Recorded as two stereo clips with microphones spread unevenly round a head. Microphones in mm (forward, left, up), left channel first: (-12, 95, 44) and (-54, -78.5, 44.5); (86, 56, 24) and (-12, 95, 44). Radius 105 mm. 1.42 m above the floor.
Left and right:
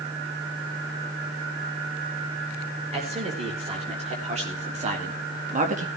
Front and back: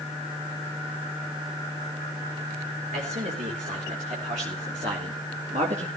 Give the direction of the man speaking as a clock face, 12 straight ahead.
5 o'clock.